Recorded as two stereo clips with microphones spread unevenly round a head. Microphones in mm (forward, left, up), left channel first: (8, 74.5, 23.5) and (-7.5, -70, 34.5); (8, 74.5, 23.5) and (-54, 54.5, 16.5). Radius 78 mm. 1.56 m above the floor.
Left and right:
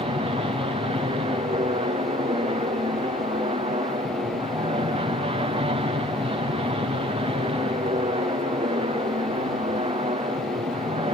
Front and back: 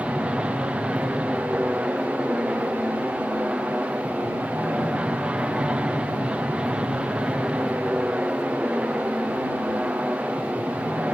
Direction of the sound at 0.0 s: 100° right.